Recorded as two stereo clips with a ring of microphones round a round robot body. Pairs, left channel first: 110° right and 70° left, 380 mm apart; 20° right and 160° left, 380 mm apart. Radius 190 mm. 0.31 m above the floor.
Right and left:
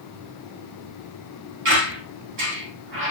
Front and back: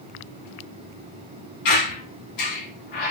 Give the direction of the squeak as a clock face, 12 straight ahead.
12 o'clock.